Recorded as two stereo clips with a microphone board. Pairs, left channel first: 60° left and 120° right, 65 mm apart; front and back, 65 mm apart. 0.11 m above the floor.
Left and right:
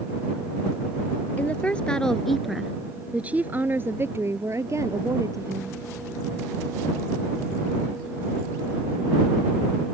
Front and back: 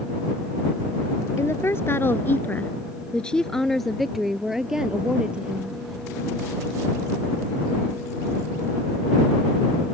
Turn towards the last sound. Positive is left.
turn(degrees=-110)